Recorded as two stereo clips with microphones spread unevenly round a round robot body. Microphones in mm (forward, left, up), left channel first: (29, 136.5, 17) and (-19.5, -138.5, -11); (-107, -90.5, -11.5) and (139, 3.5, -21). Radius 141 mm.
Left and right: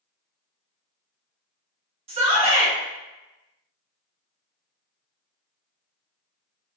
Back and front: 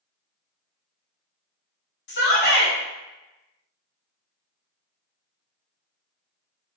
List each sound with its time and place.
2.1 s a shout: 145° right, 0.8 m